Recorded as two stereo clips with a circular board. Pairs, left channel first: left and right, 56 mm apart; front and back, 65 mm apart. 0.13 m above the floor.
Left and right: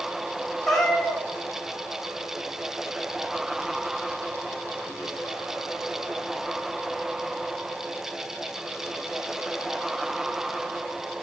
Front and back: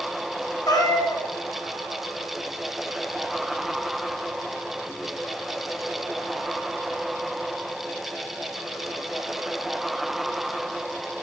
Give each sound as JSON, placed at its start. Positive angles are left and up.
{"t": 0.7, "sound": "a cat meowing", "azimuth_deg": 5, "distance_m": 3.5}